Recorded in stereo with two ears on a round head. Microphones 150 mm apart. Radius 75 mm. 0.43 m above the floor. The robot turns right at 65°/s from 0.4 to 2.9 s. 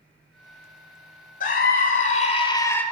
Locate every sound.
1.4 s a scream: 75° left, 1.7 m; by 2.8 s 165° left, 1.7 m